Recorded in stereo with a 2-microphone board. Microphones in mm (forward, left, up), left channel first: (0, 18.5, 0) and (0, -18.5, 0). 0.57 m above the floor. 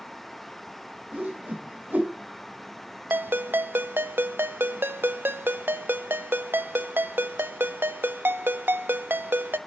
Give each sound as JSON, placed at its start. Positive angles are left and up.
{"t": 1.1, "sound": "a whoosh", "side_deg": -55, "distance_m": 2.5}
{"t": 3.1, "sound": "a ringtone", "side_deg": -75, "distance_m": 0.6}